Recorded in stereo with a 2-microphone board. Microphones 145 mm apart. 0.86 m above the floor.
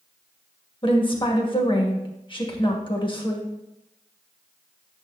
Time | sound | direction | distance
0.8 | a woman speaking | 35° left (ahead or behind) | 1.4 m